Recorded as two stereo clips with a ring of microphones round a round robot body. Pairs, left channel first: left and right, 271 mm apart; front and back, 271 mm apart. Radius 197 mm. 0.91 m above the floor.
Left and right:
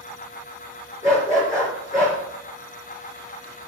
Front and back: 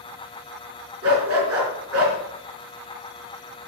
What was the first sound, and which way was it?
A dog barking, 170° left.